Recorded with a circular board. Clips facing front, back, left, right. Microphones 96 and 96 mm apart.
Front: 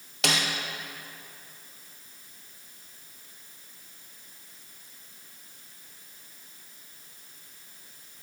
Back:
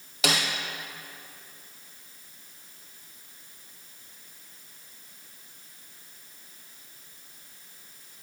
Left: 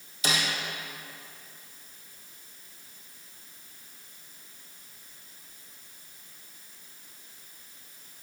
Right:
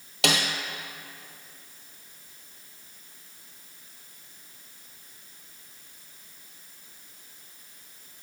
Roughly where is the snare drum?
Right.